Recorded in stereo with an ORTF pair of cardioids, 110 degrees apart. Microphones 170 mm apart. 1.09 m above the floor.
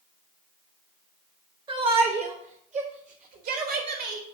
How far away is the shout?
About 4 m.